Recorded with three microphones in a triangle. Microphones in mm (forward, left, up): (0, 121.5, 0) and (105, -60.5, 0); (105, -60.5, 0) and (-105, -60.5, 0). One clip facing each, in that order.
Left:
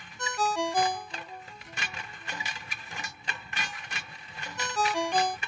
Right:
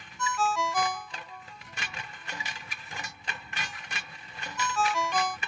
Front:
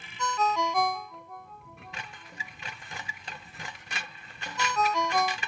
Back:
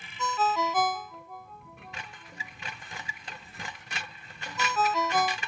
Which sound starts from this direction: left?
A ringtone, at 0.2 s.